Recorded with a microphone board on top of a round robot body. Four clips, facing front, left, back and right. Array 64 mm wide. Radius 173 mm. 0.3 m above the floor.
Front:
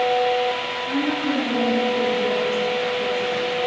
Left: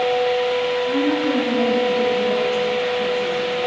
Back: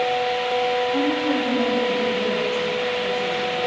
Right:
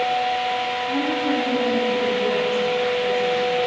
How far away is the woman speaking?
About 6.5 m.